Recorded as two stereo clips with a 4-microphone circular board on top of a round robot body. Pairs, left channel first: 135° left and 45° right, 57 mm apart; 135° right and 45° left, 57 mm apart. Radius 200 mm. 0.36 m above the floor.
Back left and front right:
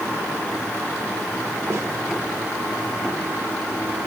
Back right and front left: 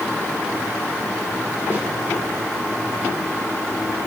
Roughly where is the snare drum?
Ahead.